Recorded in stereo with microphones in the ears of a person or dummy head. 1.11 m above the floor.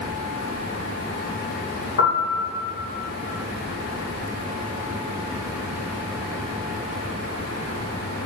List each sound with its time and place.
2.0 s a piano: 50° left (ahead or behind), 7.5 m